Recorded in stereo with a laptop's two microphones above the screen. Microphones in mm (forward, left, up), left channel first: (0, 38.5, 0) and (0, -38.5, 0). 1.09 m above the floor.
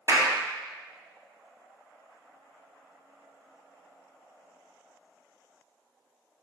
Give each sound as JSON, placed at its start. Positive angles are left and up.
{"t": 0.1, "sound": "a clap", "side_deg": -45, "distance_m": 2.5}